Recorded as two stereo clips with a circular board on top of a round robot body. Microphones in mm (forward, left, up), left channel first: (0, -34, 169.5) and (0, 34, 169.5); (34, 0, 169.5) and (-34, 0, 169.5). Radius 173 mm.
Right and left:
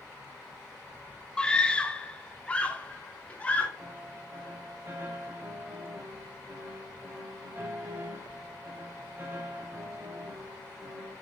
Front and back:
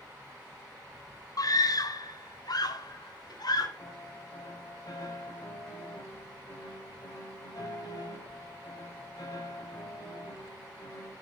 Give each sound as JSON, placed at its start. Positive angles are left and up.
{"t": 1.4, "sound": "a scream", "azimuth_deg": -15, "distance_m": 1.2}
{"t": 3.8, "sound": "a piano", "azimuth_deg": 30, "distance_m": 3.5}